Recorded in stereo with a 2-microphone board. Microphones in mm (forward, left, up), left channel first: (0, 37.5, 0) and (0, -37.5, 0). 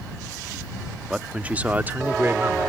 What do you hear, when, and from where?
1.1 s a man speaking: 10° right (ahead or behind); by 2.6 s 30° right (ahead or behind)